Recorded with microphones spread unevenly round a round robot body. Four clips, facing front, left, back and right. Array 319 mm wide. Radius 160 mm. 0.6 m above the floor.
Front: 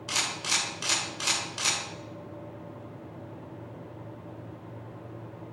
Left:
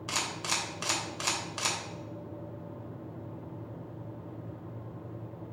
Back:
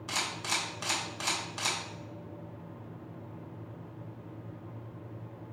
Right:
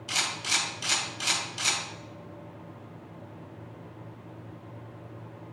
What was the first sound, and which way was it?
A camera shutter, 75° left.